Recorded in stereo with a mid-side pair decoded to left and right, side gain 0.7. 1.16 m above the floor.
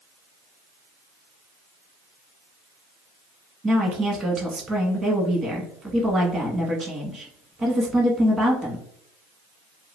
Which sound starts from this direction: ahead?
A woman speaking, at 3.6 s.